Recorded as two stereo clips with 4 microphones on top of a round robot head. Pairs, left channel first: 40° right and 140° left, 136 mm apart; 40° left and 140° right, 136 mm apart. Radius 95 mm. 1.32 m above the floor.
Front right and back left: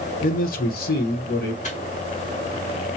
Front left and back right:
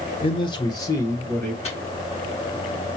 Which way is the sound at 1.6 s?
5° right.